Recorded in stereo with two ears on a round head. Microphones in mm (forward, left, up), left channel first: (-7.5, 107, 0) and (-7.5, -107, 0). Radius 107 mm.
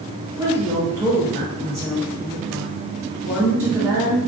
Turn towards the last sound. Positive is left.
turn(degrees=-10)  # may be behind; listen again after turning